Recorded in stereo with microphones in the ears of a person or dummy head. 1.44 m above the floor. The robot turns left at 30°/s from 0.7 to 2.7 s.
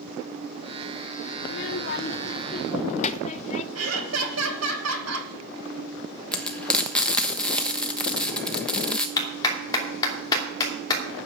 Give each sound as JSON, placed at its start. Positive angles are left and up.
{"t": 1.4, "sound": "a child speaking", "azimuth_deg": 70, "distance_m": 0.9}
{"t": 3.8, "sound": "laughter", "side_deg": -80, "distance_m": 2.0}
{"t": 6.3, "sound": "frying", "side_deg": 5, "distance_m": 1.2}
{"t": 9.2, "sound": "a clap", "side_deg": 20, "distance_m": 2.5}